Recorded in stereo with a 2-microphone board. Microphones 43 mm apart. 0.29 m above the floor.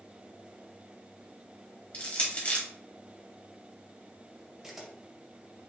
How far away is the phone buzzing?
No phone buzzing in this recording.